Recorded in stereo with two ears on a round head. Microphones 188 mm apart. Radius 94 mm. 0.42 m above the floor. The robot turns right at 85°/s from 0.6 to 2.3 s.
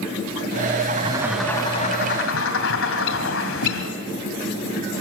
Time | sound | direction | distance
0.9 | a bird | 45° right | 2.5 m